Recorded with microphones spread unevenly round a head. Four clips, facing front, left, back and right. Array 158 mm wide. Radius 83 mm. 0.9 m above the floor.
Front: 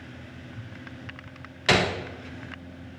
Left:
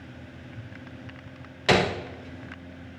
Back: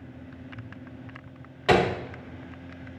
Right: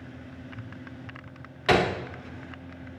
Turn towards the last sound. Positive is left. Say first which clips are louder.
# even, back 3 dB
turn(degrees=140)